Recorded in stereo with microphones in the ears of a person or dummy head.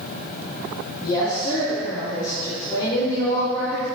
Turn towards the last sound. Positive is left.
turn(degrees=30)  # may be behind; listen again after turning